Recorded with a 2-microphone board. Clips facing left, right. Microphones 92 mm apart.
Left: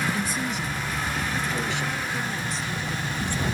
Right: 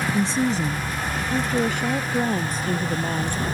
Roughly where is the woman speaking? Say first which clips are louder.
Right 6 dB; right.